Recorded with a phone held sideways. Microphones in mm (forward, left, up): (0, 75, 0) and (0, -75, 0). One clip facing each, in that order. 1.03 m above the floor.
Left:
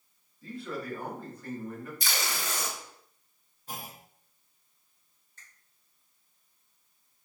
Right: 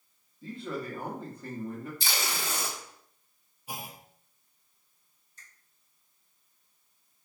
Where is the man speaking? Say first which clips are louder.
Right 1 dB; 25° right (ahead or behind), 1.4 m.